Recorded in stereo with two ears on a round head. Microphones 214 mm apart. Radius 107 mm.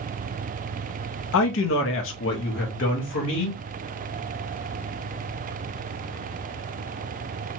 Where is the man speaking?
55° left (ahead or behind), 0.5 m.